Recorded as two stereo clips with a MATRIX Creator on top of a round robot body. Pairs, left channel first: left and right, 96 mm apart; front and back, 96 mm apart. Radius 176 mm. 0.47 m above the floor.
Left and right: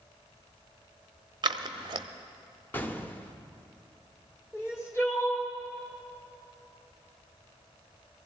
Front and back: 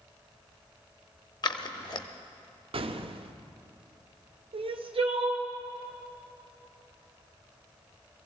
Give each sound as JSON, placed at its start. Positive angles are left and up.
{"t": 1.4, "sound": "scissors", "azimuth_deg": -45, "distance_m": 0.8}
{"t": 2.7, "sound": "an explosion", "azimuth_deg": 160, "distance_m": 0.8}
{"t": 4.5, "sound": "crying", "azimuth_deg": 155, "distance_m": 1.5}